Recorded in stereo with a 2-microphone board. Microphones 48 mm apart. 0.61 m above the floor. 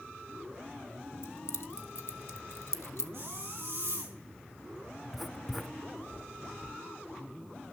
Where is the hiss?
70° right (ahead or behind), 5.5 m.